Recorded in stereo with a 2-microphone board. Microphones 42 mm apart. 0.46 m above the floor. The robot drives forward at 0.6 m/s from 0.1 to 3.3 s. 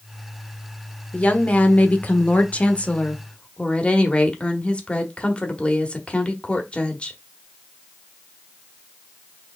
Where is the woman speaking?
30° left (ahead or behind), 1.1 m.